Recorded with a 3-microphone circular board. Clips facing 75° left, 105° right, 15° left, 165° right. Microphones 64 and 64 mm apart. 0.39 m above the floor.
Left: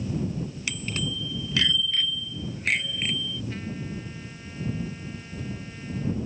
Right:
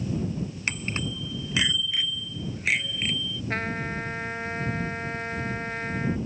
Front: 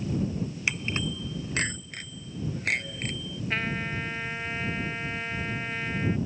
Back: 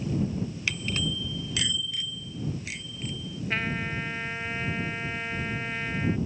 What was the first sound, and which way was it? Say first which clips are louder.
A bicycle bell: right 1 dB, front 1 dB; 55° right.